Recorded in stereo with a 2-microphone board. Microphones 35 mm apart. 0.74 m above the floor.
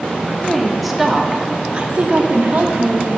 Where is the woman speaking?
5° left (ahead or behind), 1.5 m; by 3.2 s 65° right (ahead or behind), 1.6 m.